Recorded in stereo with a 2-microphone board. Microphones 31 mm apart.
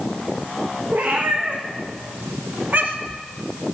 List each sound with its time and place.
0.9 s a cat meowing: 80° right, 4.5 m; by 3.2 s 50° right (ahead or behind), 1.0 m